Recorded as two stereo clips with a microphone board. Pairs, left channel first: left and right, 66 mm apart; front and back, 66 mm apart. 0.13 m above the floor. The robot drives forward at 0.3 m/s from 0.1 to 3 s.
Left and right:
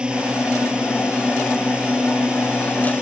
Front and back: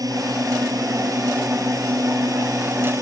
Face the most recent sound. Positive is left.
turn(degrees=-165)